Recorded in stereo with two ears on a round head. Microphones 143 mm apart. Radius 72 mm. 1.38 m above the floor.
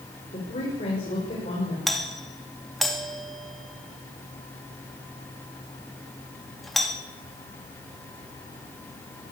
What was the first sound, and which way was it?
A woman speaking, 35° left (ahead or behind).